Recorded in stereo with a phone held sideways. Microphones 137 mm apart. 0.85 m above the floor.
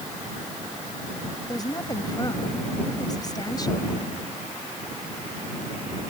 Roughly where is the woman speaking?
Left.